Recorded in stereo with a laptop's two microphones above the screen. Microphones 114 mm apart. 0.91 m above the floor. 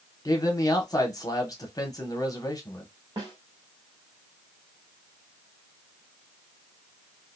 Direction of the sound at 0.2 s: 30° left (ahead or behind).